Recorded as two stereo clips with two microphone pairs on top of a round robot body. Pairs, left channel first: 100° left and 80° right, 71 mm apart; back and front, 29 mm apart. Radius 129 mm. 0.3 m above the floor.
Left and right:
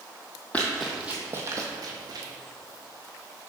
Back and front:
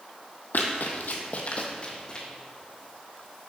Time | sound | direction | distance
0.5 | running footsteps | 175° left | 0.5 m